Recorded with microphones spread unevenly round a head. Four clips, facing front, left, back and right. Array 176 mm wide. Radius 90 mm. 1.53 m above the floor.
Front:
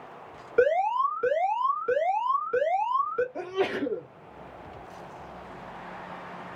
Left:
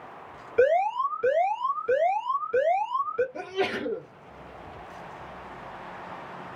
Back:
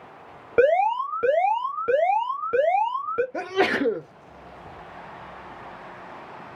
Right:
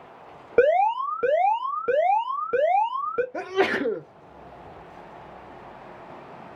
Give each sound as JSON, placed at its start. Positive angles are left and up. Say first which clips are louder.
{"t": 0.6, "sound": "an alarm", "louder": "right 3 dB, back 4 dB", "azimuth_deg": -130, "distance_m": 1.7}
{"t": 3.3, "sound": "a sneeze", "louder": "right 5 dB, back 5 dB", "azimuth_deg": -165, "distance_m": 0.6}